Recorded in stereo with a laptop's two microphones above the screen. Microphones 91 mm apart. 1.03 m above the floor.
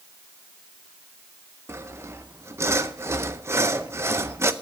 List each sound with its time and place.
1.7 s sawing: 30° right (ahead or behind), 0.5 m